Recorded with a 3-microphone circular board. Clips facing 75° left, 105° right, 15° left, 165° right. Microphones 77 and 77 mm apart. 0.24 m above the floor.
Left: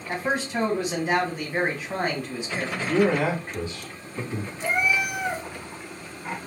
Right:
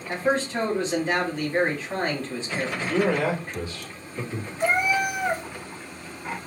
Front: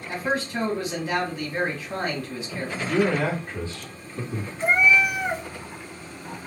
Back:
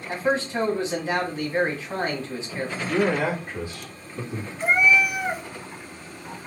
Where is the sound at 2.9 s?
125° left, 1.7 m.